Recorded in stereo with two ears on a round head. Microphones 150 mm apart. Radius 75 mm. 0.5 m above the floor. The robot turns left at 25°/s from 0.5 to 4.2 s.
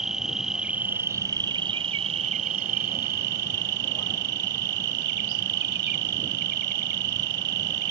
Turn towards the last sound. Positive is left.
turn(degrees=-95)